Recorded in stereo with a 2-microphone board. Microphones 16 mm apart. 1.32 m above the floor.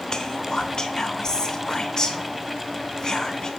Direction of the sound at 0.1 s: 35° left (ahead or behind).